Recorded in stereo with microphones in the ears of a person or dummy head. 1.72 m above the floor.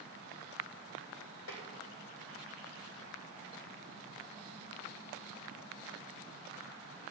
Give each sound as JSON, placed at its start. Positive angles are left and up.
{"t": 1.5, "sound": "tapping", "side_deg": 80, "distance_m": 2.5}